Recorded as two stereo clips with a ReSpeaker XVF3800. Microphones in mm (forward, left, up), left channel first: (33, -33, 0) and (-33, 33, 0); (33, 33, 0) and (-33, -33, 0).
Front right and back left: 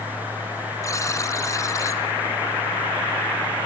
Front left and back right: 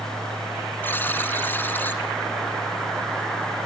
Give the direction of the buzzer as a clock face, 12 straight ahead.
12 o'clock.